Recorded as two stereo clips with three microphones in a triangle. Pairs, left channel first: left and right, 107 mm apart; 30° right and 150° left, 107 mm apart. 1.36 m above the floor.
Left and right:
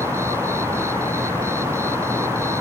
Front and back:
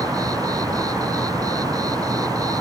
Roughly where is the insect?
Behind right.